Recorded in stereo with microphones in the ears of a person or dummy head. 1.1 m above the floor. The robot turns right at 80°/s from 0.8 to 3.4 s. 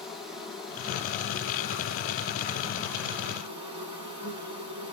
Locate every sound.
0.0 s an insect: 5° right, 1.9 m; by 4.9 s 155° right, 1.9 m